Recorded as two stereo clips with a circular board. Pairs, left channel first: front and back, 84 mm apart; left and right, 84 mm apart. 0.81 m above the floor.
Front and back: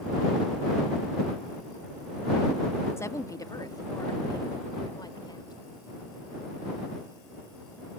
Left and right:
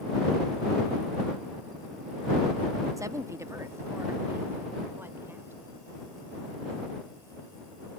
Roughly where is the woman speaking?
Ahead right.